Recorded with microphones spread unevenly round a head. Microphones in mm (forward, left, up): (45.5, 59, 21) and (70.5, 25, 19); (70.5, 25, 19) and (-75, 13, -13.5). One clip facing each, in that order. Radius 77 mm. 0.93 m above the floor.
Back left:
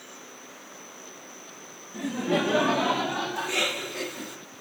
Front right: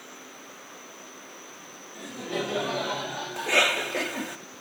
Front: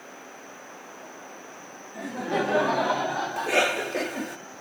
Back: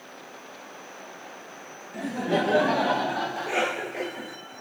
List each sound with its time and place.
1.9 s laughter: 150° left, 1.1 m; by 3.9 s 125° left, 1.9 m
3.4 s a cough: 45° right, 1.3 m